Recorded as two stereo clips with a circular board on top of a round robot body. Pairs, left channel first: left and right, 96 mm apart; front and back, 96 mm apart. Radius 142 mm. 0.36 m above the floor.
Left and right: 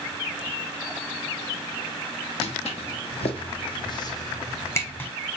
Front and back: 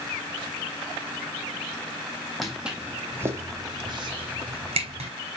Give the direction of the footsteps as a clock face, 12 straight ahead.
9 o'clock.